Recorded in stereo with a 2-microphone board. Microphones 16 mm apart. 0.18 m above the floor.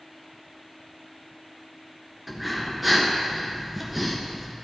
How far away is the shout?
I don't hear a shout.